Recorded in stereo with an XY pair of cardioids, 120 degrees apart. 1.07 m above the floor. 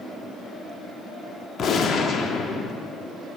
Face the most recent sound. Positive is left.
turn(degrees=55)